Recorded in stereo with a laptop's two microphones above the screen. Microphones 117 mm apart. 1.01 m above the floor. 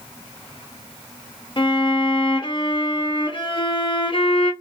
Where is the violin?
40° left (ahead or behind), 0.6 m.